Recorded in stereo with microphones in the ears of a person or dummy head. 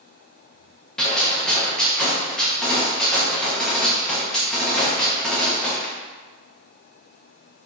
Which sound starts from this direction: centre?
A gunshot, at 1.0 s.